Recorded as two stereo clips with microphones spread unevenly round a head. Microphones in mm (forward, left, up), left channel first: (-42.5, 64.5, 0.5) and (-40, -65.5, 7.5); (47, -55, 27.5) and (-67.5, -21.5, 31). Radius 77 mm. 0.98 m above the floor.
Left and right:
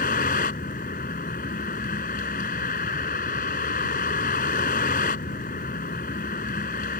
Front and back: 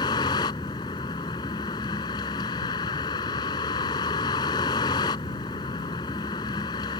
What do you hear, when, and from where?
0.0 s a vehicle: 45° left